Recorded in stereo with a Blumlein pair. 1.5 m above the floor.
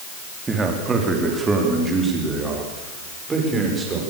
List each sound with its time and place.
0.5 s a man speaking: 15° right, 4 m